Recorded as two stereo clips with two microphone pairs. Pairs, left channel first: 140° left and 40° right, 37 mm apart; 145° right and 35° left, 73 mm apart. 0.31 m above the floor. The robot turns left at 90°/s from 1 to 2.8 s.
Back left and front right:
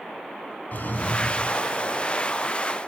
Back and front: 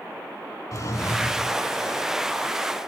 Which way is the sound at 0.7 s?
175° left.